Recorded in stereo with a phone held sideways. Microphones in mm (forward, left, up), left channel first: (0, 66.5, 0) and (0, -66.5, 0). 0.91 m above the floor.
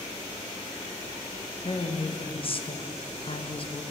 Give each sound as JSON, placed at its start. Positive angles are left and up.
{"t": 1.6, "sound": "a woman speaking", "side_deg": 45, "distance_m": 0.7}